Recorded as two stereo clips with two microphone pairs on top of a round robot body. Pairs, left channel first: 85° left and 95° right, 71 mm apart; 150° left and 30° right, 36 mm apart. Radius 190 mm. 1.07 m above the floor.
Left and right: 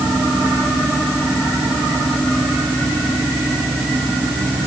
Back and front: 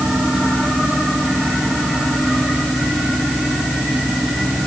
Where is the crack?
I don't hear a crack.